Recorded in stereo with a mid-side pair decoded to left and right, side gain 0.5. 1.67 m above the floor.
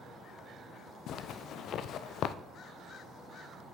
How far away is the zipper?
About 0.5 m.